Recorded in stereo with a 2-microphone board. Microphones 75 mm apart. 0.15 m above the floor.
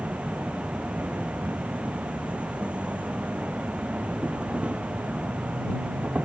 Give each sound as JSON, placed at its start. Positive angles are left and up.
{"t": 0.0, "sound": "an insect", "side_deg": -15}